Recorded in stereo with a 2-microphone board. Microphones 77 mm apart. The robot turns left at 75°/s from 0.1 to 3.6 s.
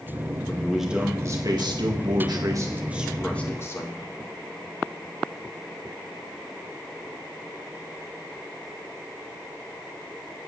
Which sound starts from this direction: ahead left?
A man speaking, at 0.5 s.